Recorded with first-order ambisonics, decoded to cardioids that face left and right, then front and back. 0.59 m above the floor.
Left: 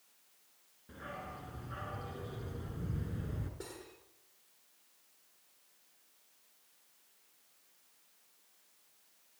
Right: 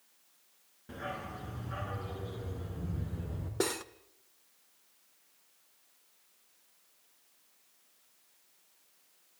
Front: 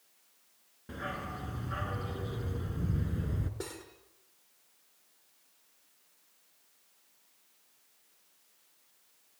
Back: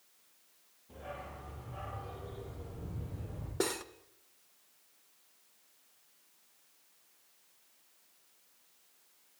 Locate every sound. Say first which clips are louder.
0.9 s a dog barking: right 5 dB, front 7 dB; 20° right, 3 m; by 3.5 s 15° left, 3.5 m
3.6 s cutlery clinking: right 20 dB, back 12 dB; 120° right, 1.1 m